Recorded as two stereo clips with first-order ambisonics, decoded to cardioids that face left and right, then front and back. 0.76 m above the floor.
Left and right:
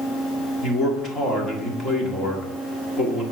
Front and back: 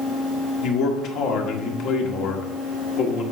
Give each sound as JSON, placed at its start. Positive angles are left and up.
{"t": 0.6, "sound": "a man speaking", "azimuth_deg": 35, "distance_m": 1.7}